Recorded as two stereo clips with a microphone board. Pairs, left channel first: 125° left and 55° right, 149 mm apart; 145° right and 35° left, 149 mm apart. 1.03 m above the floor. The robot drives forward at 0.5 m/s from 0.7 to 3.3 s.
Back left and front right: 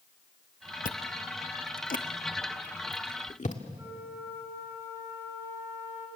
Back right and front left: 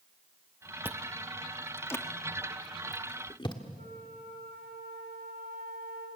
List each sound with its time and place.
0.8 s chewing: 110° left, 0.6 m; by 3.6 s 160° left, 1.6 m
3.8 s a flute: 20° left, 6.5 m